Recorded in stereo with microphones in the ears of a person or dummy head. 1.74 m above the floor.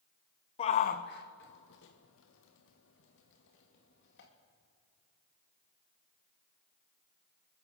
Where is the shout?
35° left (ahead or behind), 0.9 m; by 4.3 s 70° left (ahead or behind), 3 m.